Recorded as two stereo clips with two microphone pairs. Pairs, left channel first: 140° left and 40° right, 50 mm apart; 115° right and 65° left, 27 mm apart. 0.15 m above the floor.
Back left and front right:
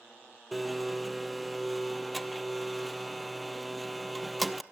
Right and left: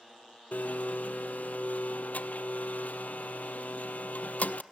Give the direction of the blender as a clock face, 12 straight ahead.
4 o'clock.